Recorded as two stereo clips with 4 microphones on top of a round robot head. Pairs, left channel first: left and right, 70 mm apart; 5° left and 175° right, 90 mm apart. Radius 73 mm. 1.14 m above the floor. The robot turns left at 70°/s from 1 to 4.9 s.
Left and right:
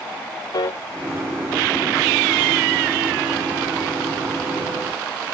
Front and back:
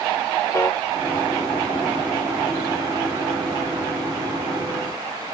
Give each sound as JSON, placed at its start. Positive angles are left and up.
{"t": 0.5, "sound": "a piano", "azimuth_deg": 65}